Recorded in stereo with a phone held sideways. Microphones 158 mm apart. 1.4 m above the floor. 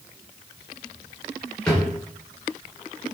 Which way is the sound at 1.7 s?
5° left (ahead or behind).